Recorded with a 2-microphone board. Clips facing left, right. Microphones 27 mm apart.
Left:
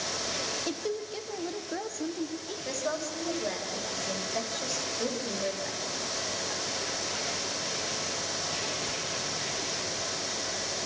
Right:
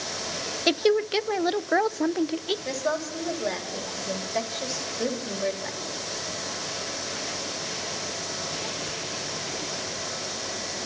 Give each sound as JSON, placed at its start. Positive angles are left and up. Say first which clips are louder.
{"t": 0.7, "sound": "a woman speaking", "louder": "right 11 dB", "side_deg": -60, "distance_m": 0.8}
{"t": 2.6, "sound": "a woman speaking", "louder": "right 4 dB", "side_deg": -20, "distance_m": 4.5}